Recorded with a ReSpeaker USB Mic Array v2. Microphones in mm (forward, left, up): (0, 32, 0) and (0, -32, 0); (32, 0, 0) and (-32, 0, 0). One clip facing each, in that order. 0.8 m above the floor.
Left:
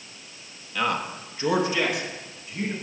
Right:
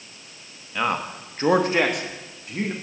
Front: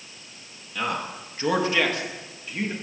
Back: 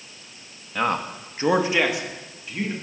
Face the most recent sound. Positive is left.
turn(degrees=-85)